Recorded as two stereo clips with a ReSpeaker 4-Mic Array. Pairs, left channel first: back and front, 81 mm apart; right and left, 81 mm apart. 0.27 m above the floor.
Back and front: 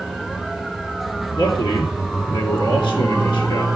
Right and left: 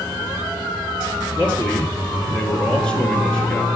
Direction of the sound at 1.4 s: 170° right.